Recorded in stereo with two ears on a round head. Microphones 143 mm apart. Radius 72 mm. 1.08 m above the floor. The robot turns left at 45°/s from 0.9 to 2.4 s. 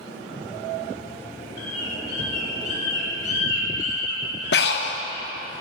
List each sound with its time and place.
1.6 s a bird: 85° left, 3.5 m; by 5.2 s 50° left (ahead or behind), 3.5 m
4.5 s breathing: 70° left (ahead or behind), 0.9 m